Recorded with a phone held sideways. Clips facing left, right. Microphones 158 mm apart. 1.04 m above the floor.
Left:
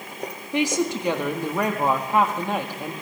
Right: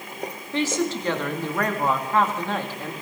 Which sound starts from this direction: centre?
A woman speaking, at 0.5 s.